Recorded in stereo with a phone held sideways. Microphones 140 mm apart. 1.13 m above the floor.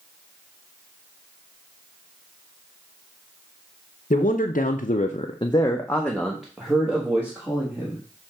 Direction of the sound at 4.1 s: 70° left (ahead or behind).